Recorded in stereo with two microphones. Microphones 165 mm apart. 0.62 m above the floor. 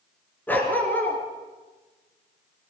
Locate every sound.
0.5 s a dog barking: 10° left (ahead or behind), 3.5 m